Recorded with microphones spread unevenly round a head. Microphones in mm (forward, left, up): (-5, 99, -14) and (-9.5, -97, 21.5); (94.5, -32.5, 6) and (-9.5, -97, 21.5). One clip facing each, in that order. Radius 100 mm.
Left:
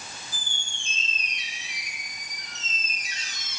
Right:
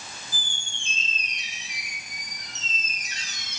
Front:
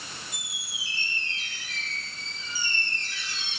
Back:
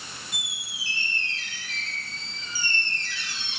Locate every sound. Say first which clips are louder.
0.3 s a squeak: right 1 dB, back 2 dB; 140° right, 2.0 m